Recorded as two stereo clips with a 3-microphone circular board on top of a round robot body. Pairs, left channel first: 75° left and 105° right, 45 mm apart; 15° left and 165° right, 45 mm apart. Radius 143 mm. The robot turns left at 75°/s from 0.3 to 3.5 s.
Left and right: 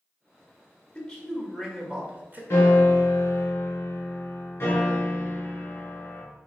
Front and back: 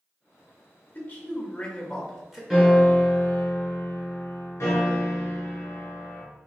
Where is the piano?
115° left, 2 m; by 6.2 s 40° left, 2 m.